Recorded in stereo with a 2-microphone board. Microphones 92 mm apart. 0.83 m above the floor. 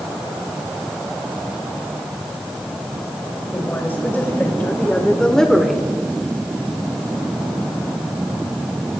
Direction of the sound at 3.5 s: 25° left (ahead or behind).